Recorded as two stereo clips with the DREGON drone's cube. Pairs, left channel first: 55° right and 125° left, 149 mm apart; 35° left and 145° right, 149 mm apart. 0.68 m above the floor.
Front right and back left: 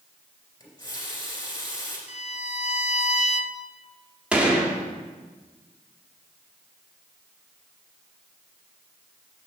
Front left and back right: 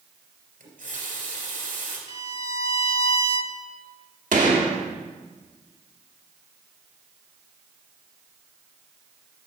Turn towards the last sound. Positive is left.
turn(degrees=-155)